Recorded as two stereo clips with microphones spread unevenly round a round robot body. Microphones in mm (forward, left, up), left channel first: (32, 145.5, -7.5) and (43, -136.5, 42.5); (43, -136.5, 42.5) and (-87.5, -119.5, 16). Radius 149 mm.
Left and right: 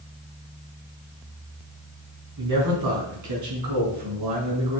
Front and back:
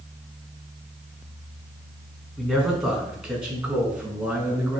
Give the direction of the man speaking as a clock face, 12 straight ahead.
3 o'clock.